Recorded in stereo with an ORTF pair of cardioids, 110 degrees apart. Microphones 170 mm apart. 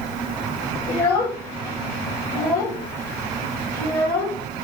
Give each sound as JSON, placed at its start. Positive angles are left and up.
{"t": 0.9, "sound": "a child speaking", "azimuth_deg": 70, "distance_m": 2.5}